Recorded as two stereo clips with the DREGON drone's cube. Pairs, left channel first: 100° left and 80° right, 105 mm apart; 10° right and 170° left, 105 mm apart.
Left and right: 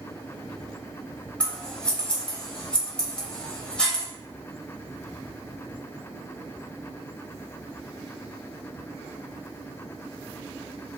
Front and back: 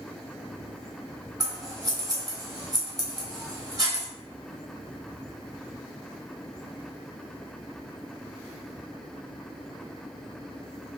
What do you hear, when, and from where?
1.4 s scissors: 175° left, 0.8 m